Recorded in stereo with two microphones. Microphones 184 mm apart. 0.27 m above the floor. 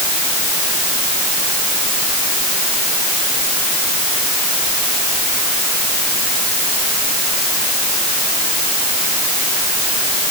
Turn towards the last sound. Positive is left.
No sound to turn to.